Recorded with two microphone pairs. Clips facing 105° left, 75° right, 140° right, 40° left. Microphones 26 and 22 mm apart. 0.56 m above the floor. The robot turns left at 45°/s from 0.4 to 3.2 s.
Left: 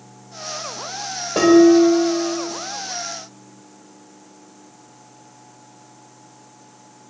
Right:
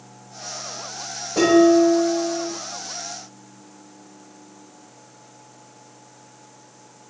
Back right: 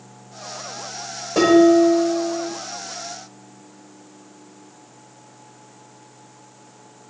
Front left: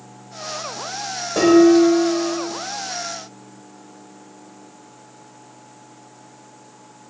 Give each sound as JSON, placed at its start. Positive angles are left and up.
{"t": 1.4, "sound": "dishes clattering", "azimuth_deg": 140, "distance_m": 1.7}